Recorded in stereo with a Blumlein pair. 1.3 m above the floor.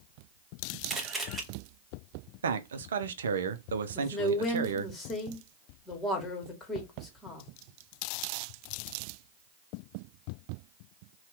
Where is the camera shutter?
5° right, 0.9 m.